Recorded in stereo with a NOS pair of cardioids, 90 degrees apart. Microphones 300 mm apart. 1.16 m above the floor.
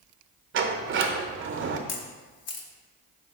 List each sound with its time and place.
0.5 s a sliding door: 40° right, 0.6 m
1.9 s a camera shutter: 55° left, 0.8 m